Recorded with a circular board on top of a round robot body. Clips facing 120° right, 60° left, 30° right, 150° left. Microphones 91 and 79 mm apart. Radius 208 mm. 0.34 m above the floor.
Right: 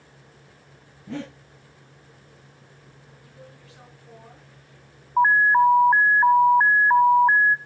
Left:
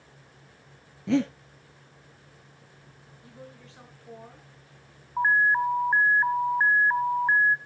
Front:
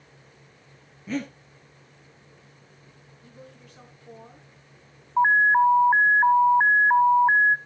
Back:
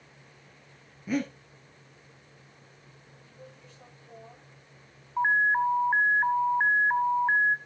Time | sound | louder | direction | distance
1.1 | breathing | left 9 dB, back 1 dB | 70° left | 1.3 m
3.2 | a woman speaking | left 2 dB, front 3 dB | straight ahead | 6.5 m
5.2 | an alarm | right 6 dB, front 6 dB | 80° right | 0.8 m